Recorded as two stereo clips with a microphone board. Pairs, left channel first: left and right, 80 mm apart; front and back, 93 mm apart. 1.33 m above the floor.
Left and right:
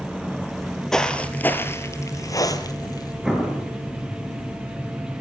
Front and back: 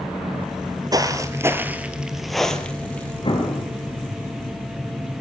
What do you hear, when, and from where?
0.5 s footsteps: 175° right, 2.0 m; by 3.1 s 70° left, 2.5 m
3.2 s an explosion: 10° right, 5 m